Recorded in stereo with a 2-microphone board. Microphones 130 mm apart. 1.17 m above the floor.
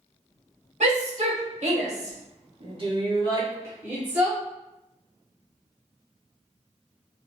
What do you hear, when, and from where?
0.8 s a shout: 60° right (ahead or behind), 1.5 m; by 4.4 s 5° right (ahead or behind), 1.3 m